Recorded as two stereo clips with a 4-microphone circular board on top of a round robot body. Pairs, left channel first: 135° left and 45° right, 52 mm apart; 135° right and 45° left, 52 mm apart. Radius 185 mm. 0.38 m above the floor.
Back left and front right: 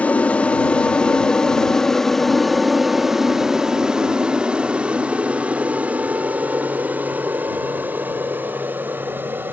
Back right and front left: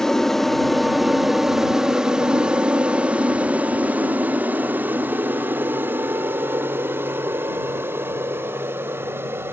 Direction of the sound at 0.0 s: 150° left.